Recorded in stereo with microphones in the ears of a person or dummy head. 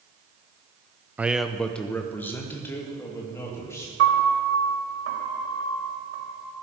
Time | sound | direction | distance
1.2 | a man speaking | 5° right (ahead or behind) | 0.5 m
4.0 | a piano | 75° right (ahead or behind) | 3 m